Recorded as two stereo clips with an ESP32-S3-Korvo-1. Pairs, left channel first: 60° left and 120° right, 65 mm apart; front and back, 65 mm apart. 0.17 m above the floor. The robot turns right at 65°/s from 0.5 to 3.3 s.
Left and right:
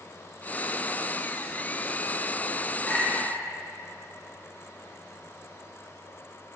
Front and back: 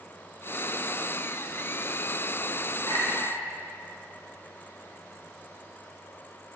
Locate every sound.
2.9 s a clink: 10° right, 2 m; by 3.4 s 20° left, 2 m